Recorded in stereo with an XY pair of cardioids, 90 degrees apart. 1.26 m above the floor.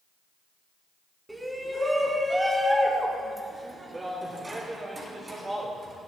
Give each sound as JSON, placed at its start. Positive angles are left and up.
{"t": 1.3, "sound": "a shout", "azimuth_deg": -10, "distance_m": 3.0}